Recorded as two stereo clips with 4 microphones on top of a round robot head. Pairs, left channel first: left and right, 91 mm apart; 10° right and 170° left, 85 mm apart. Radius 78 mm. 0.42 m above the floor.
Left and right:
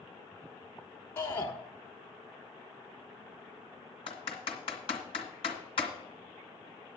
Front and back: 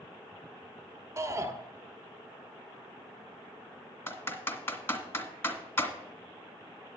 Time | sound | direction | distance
1.2 | a shout | 140° left | 1.5 m
4.1 | typing on a keyboard | 50° left | 2 m